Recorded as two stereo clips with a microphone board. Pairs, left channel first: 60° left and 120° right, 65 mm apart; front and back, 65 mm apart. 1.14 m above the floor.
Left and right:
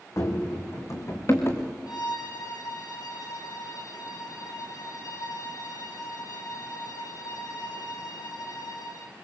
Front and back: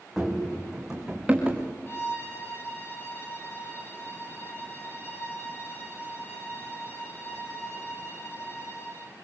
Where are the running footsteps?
90° left, 3.5 m; by 1.6 s 105° left, 5.5 m.